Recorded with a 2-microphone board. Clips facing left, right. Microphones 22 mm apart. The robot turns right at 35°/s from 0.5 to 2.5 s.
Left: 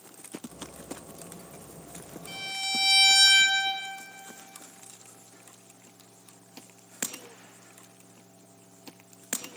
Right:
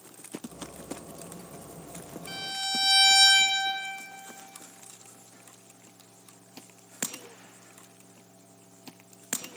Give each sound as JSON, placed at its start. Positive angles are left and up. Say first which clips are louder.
{"t": 2.3, "sound": "a violin", "louder": "even", "side_deg": -20, "distance_m": 3.0}